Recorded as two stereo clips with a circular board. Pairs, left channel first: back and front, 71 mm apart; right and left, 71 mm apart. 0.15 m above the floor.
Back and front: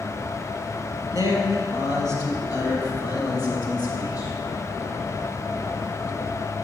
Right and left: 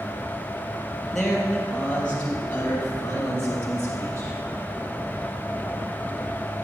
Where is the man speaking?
175° right, 3 m; by 4.3 s 150° right, 5.5 m.